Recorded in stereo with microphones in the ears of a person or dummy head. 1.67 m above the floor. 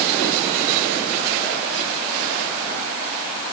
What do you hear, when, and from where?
Only background noise.